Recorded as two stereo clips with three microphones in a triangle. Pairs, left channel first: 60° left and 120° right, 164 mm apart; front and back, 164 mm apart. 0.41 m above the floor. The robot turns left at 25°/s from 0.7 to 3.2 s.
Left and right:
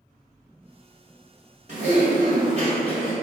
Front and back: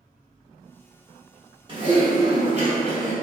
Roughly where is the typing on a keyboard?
Behind right.